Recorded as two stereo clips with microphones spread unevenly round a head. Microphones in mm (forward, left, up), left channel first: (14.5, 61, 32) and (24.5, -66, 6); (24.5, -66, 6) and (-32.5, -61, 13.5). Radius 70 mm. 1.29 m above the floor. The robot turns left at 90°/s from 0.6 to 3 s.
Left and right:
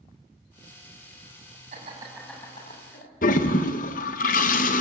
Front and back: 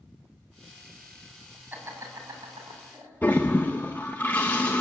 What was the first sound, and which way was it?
Laughter, 130° right.